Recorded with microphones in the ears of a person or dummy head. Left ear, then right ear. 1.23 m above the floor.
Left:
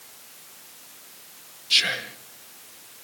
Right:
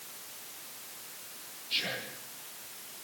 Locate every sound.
1.7 s whispering: 55° left (ahead or behind), 2 m